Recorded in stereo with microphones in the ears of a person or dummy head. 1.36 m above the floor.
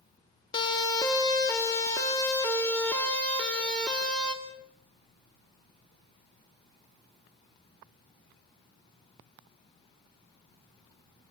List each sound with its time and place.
0.5 s a siren: 25° left (ahead or behind), 2.5 m; by 4.3 s 5° left (ahead or behind), 4 m